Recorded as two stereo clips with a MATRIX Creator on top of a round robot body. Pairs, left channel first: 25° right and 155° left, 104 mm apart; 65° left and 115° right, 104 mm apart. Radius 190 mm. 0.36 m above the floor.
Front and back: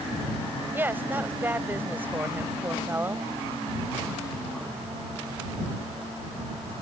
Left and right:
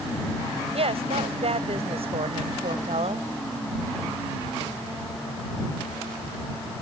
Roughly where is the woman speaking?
Behind right.